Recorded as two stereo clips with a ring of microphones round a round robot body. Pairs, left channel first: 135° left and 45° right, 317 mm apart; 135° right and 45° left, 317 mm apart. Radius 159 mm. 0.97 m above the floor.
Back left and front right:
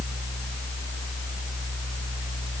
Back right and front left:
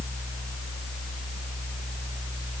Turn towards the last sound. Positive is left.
No sound to turn to.